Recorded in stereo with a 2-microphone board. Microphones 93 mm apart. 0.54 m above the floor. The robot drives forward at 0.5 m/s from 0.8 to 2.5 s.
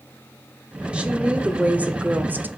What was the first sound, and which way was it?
A woman speaking, 15° right (ahead or behind).